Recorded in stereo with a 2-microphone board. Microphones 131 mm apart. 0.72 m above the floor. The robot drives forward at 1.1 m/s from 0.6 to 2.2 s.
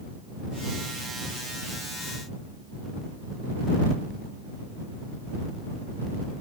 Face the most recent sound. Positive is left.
No sound to turn to.